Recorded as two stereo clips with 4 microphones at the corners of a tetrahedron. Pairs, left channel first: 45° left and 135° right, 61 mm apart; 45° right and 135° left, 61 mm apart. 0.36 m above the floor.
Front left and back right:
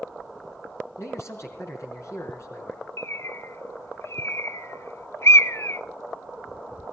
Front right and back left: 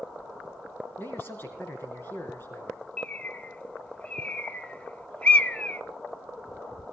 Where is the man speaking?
10° left, 4.5 m.